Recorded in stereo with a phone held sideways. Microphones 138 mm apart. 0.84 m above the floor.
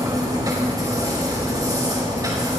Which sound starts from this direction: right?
A machine running, at 0.0 s.